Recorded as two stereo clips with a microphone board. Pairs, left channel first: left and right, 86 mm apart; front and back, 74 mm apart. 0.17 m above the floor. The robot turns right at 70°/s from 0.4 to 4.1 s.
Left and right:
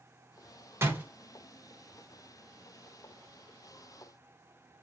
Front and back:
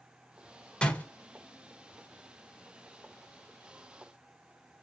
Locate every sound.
0.8 s a door slam: 60° right, 0.8 m; by 1.1 s 45° right, 0.8 m